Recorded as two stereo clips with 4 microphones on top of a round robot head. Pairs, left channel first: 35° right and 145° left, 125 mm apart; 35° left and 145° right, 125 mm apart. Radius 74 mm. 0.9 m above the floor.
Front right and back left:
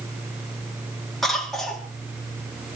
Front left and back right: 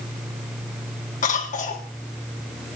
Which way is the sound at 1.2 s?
55° left.